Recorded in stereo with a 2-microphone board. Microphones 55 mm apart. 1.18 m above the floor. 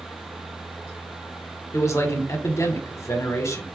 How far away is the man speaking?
About 1.2 m.